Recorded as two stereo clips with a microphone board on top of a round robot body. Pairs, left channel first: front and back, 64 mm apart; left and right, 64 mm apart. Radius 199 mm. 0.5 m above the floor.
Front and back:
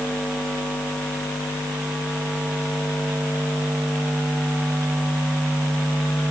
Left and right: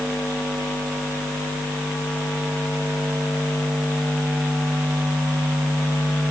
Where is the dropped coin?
I don't hear a dropped coin.